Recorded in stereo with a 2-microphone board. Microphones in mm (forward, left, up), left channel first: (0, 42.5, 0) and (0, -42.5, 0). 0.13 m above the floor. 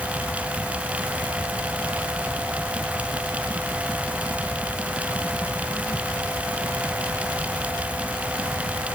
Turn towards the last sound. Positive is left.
No sound to turn to.